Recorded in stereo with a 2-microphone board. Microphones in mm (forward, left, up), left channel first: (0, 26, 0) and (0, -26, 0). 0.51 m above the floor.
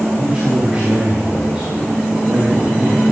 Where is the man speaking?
15° right (ahead or behind), 4 m.